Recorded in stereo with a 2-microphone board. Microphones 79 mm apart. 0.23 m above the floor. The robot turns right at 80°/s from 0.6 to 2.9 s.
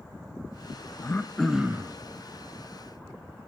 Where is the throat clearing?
145° left, 0.6 m; by 1.9 s 140° right, 0.6 m.